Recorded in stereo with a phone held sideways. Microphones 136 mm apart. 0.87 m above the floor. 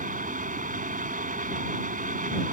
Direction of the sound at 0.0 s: 85° right.